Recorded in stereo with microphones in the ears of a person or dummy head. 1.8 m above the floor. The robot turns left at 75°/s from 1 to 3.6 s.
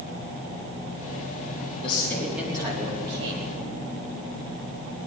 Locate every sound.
1.8 s a man speaking: 30° left, 3.5 m; by 3.5 s 95° right, 3.5 m